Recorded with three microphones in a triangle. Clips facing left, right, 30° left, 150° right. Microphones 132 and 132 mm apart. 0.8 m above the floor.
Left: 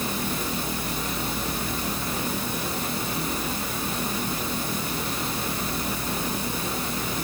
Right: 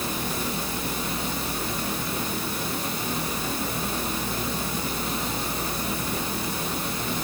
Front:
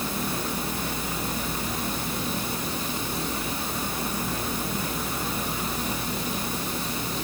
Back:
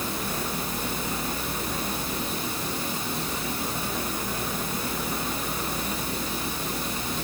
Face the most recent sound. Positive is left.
No sound to turn to.